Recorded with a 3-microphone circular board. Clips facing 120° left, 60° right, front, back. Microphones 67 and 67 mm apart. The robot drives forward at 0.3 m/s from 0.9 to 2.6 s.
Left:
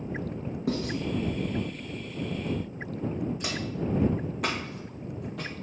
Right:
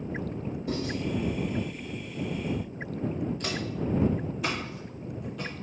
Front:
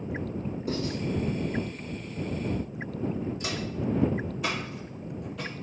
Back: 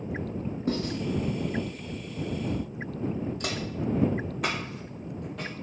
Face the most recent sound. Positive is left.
turn(degrees=130)